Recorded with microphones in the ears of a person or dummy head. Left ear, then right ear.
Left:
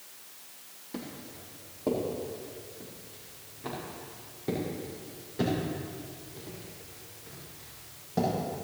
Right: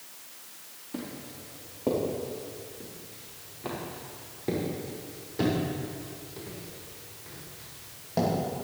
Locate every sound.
0.9 s footsteps: 10° left (ahead or behind), 4 m; by 8.3 s 20° right (ahead or behind), 9 m